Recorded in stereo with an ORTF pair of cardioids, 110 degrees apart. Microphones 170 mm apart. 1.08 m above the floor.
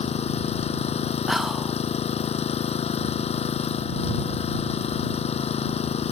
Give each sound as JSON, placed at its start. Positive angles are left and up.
{"t": 0.0, "sound": "an engine running", "azimuth_deg": 40}
{"t": 1.3, "sound": "whispering", "azimuth_deg": 0}